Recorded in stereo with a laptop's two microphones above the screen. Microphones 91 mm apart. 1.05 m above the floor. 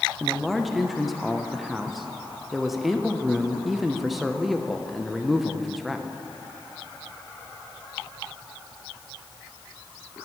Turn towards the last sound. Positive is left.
turn(degrees=0)  # may be behind; listen again after turning